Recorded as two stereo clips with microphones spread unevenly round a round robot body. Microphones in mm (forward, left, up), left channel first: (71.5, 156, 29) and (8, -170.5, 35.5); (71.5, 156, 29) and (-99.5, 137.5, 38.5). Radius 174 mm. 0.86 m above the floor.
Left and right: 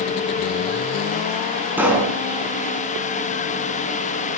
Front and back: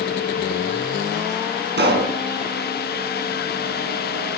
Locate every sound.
1.8 s a pop: 175° left, 6 m